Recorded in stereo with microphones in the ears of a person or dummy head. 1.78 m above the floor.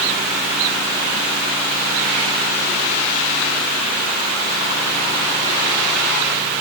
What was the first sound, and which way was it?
Only background noise.